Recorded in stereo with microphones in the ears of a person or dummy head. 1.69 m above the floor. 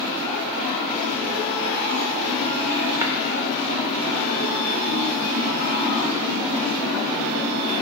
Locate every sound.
3.0 s tapping: 15° right (ahead or behind), 0.6 m